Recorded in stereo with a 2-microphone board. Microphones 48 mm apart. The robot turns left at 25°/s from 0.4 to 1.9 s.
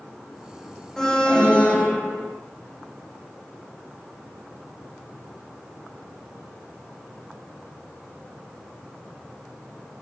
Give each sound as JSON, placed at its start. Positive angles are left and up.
{"t": 1.0, "sound": "an alarm", "side_deg": 5, "distance_m": 9.0}